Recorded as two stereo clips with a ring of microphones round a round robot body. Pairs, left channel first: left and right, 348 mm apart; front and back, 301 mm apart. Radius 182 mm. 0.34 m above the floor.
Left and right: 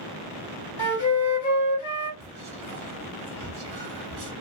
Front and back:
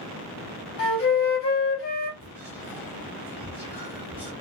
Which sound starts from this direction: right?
Whispering, at 2.2 s.